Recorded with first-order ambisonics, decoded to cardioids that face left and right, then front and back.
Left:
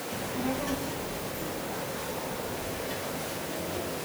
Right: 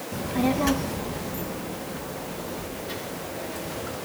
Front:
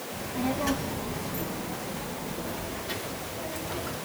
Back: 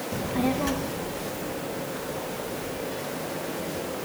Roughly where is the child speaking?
Behind right.